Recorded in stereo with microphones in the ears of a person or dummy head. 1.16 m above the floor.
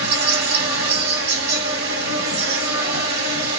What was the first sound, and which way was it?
An insect, 55° right (ahead or behind).